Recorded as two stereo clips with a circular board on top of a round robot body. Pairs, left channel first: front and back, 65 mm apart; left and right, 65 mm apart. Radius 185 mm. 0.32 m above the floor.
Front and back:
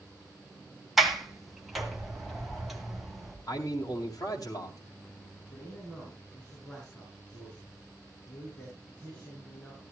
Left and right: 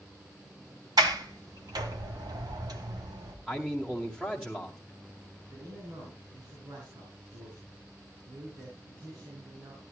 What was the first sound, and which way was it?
A sliding door, 95° right.